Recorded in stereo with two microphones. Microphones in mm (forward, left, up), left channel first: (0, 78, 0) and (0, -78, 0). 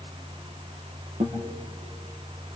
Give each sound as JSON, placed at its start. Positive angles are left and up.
{"t": 1.2, "sound": "a guitar", "side_deg": -45, "distance_m": 4.5}